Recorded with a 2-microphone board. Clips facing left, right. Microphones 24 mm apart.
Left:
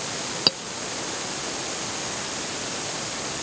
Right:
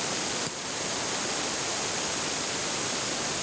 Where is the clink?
65° left (ahead or behind).